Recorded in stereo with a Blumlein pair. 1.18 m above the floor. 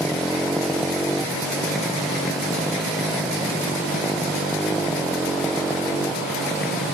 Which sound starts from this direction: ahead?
A motorcycle, at 0.0 s.